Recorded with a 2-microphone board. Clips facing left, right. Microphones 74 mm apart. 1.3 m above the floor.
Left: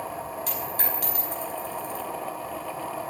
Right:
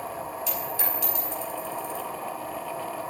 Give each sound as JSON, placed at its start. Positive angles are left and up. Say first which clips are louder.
{"t": 0.5, "sound": "a dropped coin", "louder": "even", "side_deg": 50, "distance_m": 5.0}